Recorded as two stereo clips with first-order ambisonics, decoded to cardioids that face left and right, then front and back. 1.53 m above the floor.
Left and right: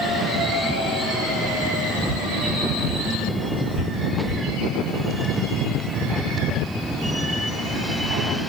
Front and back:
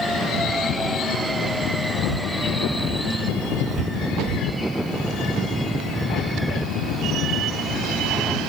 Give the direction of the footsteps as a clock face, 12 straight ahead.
3 o'clock.